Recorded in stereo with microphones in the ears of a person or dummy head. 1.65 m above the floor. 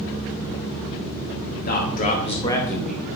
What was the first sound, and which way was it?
A man speaking, 50° left (ahead or behind).